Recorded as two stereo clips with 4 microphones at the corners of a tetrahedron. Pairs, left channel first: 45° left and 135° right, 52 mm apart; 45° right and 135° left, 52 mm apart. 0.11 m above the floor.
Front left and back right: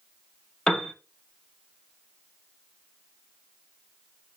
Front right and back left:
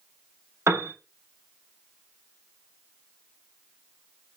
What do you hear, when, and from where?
0.7 s a piano: 120° left, 1.0 m